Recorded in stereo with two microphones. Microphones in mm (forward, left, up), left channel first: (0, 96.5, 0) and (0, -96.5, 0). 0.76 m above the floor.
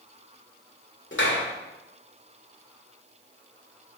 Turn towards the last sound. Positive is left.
turn(degrees=80)